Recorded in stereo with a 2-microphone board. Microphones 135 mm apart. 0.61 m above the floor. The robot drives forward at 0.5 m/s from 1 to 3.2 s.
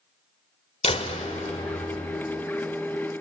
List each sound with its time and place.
0.8 s a door slam: 50° left (ahead or behind), 1.7 m; by 2.2 s 65° left (ahead or behind), 1.5 m